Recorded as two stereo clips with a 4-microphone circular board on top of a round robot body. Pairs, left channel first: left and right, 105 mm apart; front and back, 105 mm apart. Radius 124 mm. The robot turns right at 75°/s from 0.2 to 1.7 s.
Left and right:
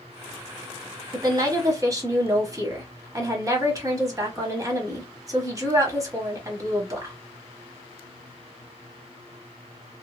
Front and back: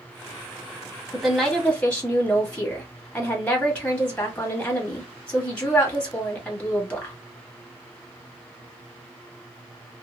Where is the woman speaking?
110° right, 1.5 m; by 7.2 s 65° right, 1.5 m.